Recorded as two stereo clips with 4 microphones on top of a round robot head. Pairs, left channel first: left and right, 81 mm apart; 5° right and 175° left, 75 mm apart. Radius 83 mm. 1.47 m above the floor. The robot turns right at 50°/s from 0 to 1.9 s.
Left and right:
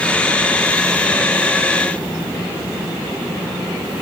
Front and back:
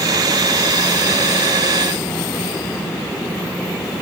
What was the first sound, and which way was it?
Only background noise.